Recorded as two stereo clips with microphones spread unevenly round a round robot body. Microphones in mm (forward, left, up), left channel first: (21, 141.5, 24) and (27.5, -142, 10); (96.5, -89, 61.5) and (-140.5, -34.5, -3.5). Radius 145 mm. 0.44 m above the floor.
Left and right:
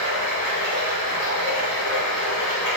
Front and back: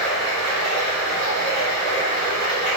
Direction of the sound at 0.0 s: 125° left.